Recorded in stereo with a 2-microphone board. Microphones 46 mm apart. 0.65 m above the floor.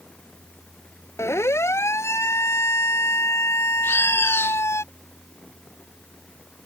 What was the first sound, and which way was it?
A siren, 80° left.